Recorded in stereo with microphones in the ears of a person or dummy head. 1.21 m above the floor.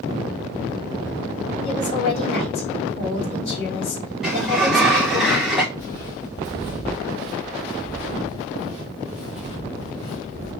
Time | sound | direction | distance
1.6 | a woman speaking | 50° left (ahead or behind) | 3 m
4.2 | a sliding door | centre (ahead or behind) | 0.7 m
5.8 | footsteps | 10° left (ahead or behind) | 1.3 m